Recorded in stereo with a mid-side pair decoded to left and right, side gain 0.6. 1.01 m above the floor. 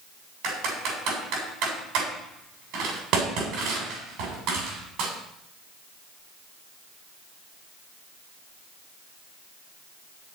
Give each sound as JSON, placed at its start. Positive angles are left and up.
{"t": 0.4, "sound": "typing on a keyboard", "azimuth_deg": -70, "distance_m": 7.5}